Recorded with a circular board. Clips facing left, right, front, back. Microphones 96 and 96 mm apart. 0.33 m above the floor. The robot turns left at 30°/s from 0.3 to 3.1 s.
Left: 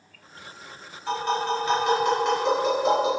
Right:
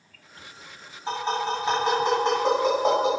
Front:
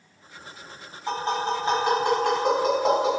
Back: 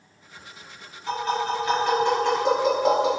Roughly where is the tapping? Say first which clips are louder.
Left 1 dB, back 1 dB; ahead right.